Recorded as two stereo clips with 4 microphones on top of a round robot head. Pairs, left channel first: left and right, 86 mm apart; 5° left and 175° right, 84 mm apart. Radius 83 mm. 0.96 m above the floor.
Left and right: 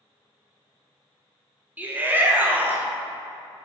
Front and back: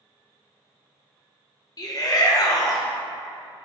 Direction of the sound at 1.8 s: 25° right.